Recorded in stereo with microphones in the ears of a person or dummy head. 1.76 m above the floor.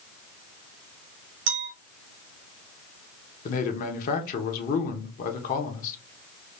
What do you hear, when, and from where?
1.5 s a clink: 35° right (ahead or behind), 1.0 m
3.5 s a man speaking: 55° left (ahead or behind), 1.1 m